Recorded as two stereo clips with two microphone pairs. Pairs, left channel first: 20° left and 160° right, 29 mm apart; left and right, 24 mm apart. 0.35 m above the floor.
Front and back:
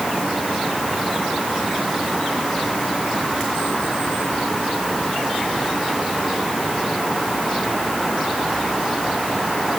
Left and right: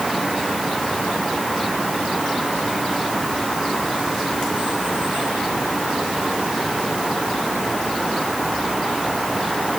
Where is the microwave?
I don't hear a microwave.